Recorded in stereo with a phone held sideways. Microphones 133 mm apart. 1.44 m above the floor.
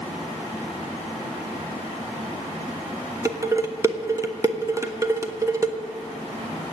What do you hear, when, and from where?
3.2 s dishes clattering: 25° right (ahead or behind), 1.2 m